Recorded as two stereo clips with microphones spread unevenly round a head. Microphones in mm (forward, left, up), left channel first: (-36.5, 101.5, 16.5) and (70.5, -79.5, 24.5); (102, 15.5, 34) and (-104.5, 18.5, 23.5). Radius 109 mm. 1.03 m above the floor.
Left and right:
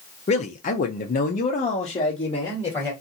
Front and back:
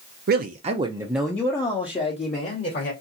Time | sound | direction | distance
0.3 | a man speaking | 170° left | 0.6 m